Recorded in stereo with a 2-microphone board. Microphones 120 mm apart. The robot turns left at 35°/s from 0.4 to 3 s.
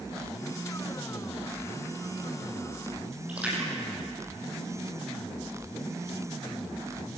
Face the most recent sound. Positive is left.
turn(degrees=-10)  # may be behind; listen again after turning